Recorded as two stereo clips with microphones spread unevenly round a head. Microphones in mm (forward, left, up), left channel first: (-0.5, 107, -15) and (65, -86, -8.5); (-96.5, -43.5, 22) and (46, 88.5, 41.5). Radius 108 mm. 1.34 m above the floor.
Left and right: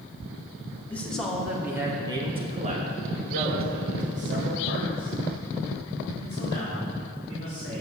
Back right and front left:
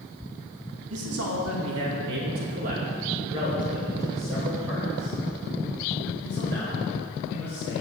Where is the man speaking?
25° left, 2 m; by 7.8 s 55° right, 5.5 m.